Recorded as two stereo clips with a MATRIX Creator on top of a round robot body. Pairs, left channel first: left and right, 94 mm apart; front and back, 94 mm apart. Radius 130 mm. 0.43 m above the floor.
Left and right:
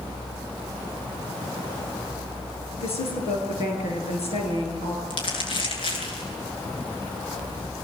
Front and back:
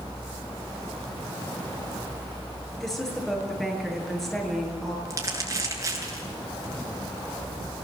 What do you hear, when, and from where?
2.8 s a woman speaking: 85° left, 8.5 m
5.1 s crumpling: 120° left, 9 m